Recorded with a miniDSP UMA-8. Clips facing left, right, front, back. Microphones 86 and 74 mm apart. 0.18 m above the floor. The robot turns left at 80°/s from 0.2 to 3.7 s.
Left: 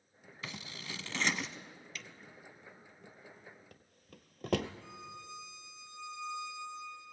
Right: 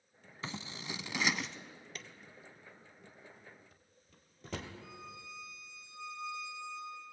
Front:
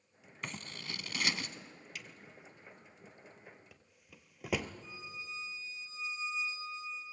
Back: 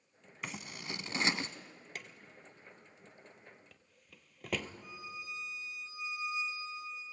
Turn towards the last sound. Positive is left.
turn(degrees=155)